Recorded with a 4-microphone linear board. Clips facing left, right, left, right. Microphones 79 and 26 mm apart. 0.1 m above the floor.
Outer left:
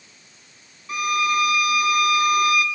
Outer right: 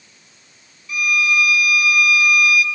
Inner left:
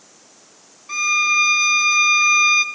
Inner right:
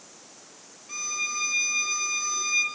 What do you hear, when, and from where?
0.9 s a violin: 40° left (ahead or behind), 1.1 m